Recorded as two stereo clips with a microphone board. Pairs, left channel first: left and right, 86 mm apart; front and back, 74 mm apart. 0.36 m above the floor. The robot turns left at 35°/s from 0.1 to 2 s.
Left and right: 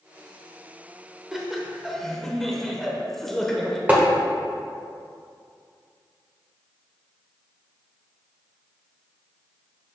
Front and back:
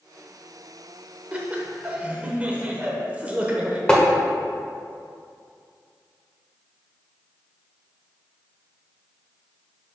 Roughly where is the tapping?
Ahead right.